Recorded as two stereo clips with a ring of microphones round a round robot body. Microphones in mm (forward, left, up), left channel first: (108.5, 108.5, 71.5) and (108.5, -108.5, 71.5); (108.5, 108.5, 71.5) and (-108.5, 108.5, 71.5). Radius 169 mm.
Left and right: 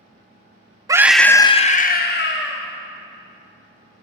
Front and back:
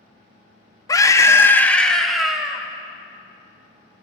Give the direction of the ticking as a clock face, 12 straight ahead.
I don't hear ticking.